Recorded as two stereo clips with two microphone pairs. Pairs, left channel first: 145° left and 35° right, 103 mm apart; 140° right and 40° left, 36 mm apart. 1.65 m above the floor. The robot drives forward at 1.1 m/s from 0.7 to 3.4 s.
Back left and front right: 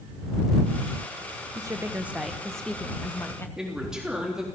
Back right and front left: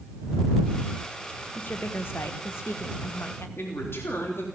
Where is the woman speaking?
90° right, 1.3 m; by 3.5 s 150° right, 2.5 m.